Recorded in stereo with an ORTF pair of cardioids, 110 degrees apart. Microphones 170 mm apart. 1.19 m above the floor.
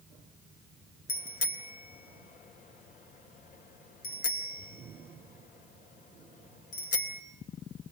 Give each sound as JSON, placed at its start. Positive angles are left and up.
{"t": 1.1, "sound": "a bicycle bell", "azimuth_deg": 55, "distance_m": 3.5}